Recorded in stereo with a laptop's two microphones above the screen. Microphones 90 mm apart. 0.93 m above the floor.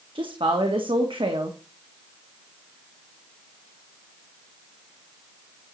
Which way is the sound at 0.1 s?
75° right (ahead or behind).